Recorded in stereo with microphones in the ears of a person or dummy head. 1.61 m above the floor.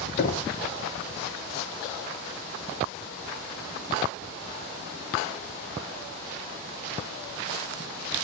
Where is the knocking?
35° left (ahead or behind), 0.7 m.